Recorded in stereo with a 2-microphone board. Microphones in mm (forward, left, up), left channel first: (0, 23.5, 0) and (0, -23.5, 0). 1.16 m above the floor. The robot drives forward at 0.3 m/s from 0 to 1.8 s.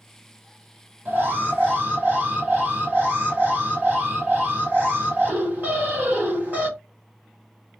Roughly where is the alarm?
Right.